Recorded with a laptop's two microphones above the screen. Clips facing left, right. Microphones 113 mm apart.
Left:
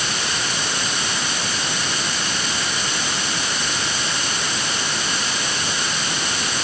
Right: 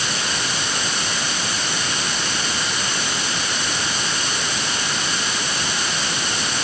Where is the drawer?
I don't hear a drawer.